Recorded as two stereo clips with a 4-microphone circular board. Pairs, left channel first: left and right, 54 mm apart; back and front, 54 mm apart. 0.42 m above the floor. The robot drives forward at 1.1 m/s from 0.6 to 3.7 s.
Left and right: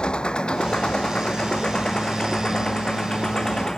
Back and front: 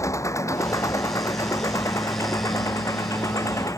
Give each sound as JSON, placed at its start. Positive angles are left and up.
{"t": 0.0, "sound": "an engine running", "azimuth_deg": 165}